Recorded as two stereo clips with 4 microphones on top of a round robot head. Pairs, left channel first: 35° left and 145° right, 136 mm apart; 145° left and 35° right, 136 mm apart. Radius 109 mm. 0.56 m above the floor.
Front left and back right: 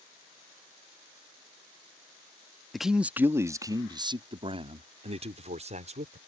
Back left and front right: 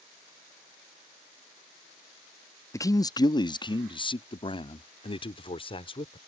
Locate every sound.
2.7 s a man speaking: 125° left; by 6.2 s 170° right